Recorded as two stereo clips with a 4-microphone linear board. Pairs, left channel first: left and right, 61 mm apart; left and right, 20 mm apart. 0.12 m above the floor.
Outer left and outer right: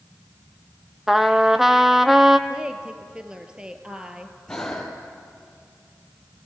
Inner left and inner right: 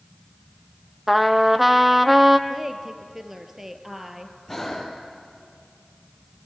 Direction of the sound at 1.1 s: 5° right (ahead or behind).